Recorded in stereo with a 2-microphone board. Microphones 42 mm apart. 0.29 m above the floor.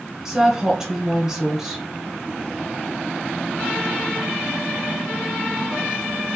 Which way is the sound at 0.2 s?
15° right (ahead or behind).